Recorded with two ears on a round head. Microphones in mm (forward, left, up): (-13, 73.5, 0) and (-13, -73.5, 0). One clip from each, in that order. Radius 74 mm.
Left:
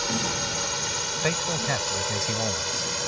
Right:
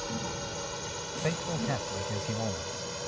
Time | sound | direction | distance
0.0 | a drone | 55° left (ahead or behind) | ?
1.2 | a man speaking | 80° left | ?